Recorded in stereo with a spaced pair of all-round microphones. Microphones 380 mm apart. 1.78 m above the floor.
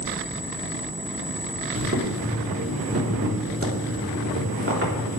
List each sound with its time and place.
1.8 s boiling: 35° right (ahead or behind), 4 m